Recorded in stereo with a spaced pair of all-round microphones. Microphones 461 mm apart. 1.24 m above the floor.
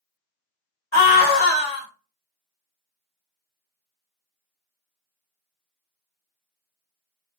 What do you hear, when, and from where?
0.9 s a scream: 70° left (ahead or behind), 1.3 m